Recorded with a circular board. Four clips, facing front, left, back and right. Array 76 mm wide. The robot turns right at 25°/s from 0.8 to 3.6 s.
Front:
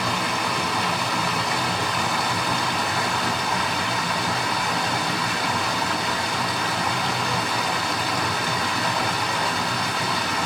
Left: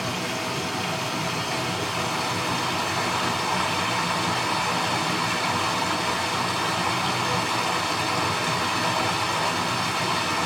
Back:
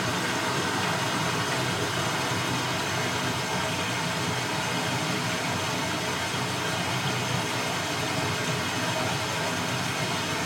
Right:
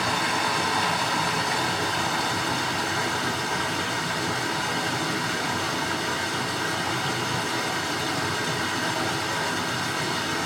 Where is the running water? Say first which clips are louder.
Right 4 dB, front 4 dB; 40° right, 1.4 m; by 10.5 s 30° left, 1.4 m.